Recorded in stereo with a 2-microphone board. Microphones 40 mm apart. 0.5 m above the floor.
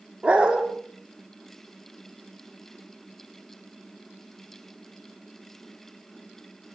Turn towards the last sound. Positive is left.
turn(degrees=-25)  # may be behind; listen again after turning